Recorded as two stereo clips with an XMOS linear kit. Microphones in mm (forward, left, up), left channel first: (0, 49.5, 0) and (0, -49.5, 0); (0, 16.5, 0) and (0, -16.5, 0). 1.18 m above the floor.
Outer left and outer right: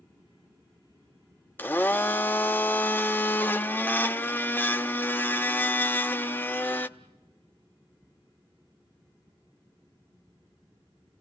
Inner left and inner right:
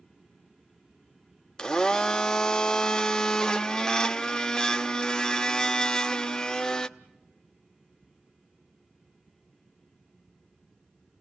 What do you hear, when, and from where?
1.6 s a blender: 20° left (ahead or behind), 0.6 m